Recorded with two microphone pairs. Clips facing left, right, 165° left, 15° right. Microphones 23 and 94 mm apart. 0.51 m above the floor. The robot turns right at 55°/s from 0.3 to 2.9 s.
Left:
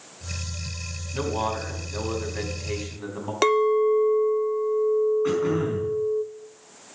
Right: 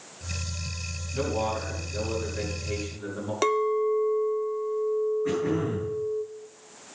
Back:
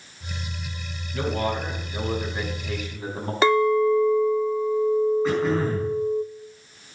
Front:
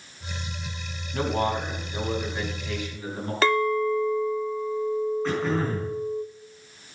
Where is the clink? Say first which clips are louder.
Left 5 dB, back 4 dB; 115° left, 0.5 m.